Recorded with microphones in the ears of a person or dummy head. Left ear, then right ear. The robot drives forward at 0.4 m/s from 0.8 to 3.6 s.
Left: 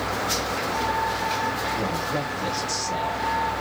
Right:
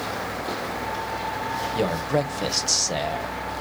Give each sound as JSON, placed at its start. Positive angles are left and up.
{"t": 1.8, "sound": "a man speaking", "side_deg": -70, "distance_m": 0.9}